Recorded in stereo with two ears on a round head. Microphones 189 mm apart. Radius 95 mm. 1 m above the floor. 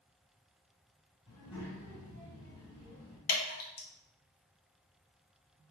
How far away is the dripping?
About 0.8 m.